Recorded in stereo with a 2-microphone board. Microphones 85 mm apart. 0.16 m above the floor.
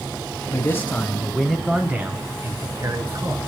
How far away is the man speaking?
About 1.3 m.